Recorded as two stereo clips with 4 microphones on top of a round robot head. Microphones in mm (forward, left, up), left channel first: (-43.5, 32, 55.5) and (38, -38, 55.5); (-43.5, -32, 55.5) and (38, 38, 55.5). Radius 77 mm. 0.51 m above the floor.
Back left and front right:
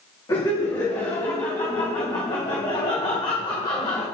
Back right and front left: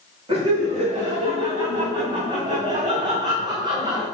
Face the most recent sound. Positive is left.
turn(degrees=95)